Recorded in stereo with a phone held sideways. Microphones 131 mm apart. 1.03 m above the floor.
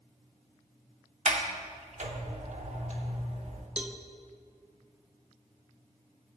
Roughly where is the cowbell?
Centre.